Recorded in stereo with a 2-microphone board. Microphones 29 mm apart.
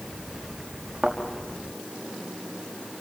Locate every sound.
1.0 s a thud: 20° right (ahead or behind), 5.5 m